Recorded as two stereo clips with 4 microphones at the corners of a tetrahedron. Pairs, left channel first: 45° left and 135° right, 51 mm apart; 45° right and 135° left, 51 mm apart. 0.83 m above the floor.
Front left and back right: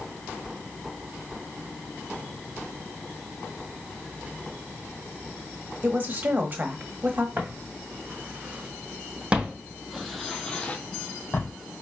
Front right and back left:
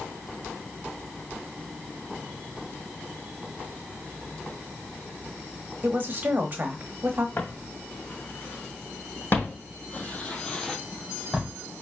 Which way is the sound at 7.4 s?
85° right.